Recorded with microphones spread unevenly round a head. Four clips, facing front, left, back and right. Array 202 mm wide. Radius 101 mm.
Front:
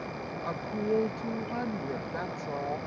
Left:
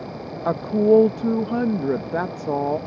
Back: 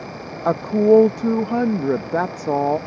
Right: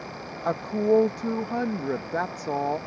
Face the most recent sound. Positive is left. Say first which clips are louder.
# left 6 dB, back 17 dB
turn(degrees=155)